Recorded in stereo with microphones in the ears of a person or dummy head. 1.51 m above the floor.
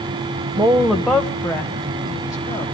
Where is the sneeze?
I don't hear a sneeze.